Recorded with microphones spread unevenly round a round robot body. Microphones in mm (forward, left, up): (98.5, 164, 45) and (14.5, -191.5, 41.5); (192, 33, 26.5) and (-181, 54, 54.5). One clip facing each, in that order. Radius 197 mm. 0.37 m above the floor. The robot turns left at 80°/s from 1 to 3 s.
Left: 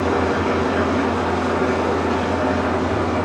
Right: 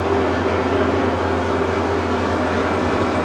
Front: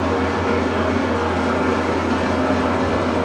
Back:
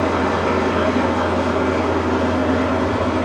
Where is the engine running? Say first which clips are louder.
Right 1 dB, back 1 dB; 110° left, 3 m; by 3.3 s 50° right, 3 m.